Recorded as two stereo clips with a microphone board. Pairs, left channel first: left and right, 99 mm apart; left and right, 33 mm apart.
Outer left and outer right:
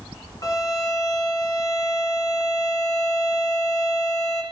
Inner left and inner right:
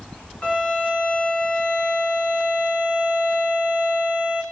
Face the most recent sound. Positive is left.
turn(degrees=35)  # may be behind; listen again after turning